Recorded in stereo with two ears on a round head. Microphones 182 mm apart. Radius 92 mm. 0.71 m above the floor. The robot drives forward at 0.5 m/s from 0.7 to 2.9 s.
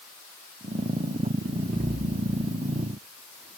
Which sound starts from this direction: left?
An explosion, at 1.7 s.